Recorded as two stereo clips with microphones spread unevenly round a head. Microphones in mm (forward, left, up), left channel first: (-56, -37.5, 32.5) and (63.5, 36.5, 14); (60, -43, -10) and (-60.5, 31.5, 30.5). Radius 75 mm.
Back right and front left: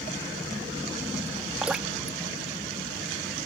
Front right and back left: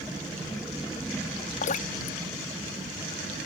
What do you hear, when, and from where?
1.6 s dripping: 50° right